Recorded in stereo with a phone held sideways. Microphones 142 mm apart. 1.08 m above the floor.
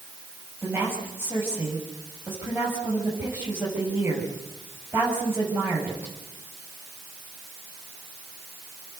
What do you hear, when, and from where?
0.6 s a woman speaking: 20° right (ahead or behind), 6.5 m